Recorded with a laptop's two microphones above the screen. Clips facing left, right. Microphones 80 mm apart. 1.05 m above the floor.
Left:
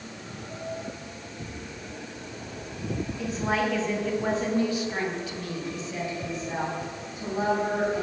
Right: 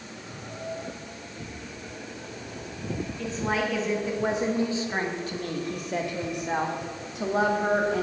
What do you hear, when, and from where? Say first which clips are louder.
3.2 s a woman speaking: left 1 dB; 5° left (ahead or behind), 1.8 m; by 8.0 s 80° right, 2.5 m